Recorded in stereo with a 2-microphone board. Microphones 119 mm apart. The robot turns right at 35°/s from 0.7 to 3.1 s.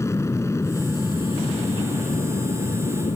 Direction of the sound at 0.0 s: 25° left.